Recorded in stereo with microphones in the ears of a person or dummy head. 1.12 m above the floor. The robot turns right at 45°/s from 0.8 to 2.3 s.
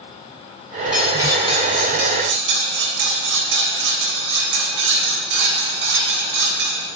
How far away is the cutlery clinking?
About 3 m.